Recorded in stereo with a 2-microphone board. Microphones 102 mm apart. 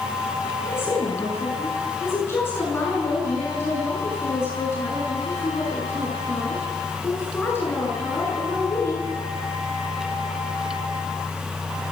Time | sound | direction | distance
0.6 | a woman speaking | 25° left (ahead or behind) | 7.5 m